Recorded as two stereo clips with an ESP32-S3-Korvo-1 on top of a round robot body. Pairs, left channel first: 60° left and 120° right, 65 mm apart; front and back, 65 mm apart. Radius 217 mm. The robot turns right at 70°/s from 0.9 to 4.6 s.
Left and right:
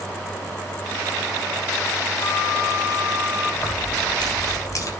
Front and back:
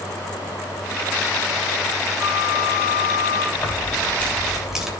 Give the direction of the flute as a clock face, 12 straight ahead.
3 o'clock.